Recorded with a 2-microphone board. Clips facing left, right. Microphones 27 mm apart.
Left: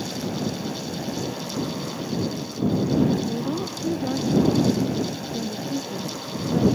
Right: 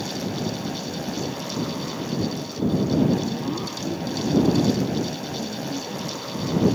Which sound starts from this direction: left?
A woman speaking, at 3.3 s.